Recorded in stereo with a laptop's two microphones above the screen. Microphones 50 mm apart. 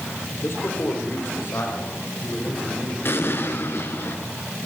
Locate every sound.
0.4 s a man speaking: 55° left (ahead or behind), 3.5 m; by 3.0 s 50° left (ahead or behind), 6.5 m
3.0 s an explosion: 50° left (ahead or behind), 3 m